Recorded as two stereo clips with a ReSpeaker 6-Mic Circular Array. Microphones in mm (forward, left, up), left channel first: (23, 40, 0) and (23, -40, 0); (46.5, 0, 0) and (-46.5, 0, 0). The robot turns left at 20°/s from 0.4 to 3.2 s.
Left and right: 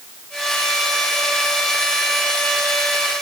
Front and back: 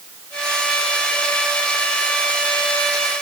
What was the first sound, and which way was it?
Only background noise.